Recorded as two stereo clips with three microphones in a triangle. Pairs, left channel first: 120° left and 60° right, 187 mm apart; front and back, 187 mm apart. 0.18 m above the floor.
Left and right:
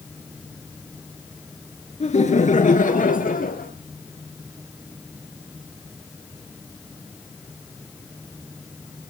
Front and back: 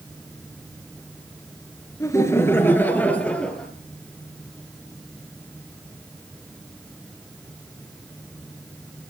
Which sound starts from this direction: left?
Laughter, at 2.0 s.